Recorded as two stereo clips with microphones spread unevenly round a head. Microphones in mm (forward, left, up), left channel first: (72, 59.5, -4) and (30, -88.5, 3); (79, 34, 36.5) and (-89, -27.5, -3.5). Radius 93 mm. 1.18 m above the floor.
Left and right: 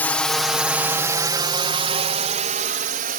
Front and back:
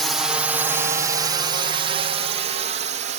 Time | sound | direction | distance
0.0 | a drone | 140° left | ?